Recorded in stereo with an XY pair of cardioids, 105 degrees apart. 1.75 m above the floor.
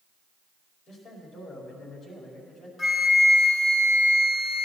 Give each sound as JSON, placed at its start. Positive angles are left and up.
{"t": 0.9, "sound": "a man speaking", "azimuth_deg": 55, "distance_m": 5.0}
{"t": 2.8, "sound": "a flute", "azimuth_deg": 40, "distance_m": 4.0}